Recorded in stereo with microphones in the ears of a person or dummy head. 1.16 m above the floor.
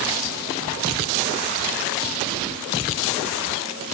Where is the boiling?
I don't hear boiling.